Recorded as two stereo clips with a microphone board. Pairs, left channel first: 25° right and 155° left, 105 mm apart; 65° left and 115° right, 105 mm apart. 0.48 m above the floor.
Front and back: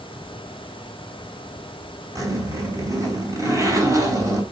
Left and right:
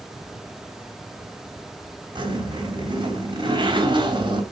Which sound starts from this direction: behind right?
A zipper, at 2.1 s.